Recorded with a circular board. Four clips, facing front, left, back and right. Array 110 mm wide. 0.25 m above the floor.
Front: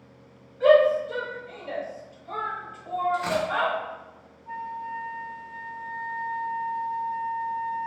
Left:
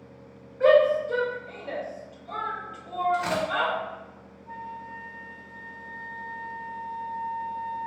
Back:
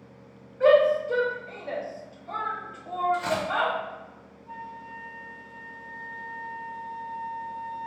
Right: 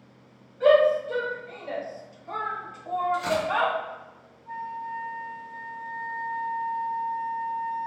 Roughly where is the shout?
Behind left.